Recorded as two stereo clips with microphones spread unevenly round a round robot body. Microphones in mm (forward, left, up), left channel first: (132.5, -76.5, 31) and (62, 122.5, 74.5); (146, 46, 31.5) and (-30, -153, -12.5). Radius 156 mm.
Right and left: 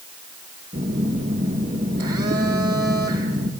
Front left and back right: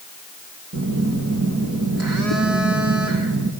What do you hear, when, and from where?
0.7 s a phone buzzing: 170° right, 2 m